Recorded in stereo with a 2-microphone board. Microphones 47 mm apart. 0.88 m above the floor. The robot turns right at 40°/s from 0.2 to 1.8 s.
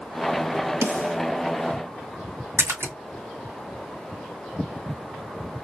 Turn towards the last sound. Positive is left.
turn(degrees=-65)  # may be behind; listen again after turning